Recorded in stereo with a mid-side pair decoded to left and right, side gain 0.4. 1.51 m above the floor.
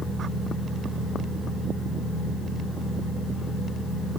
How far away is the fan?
About 2.0 m.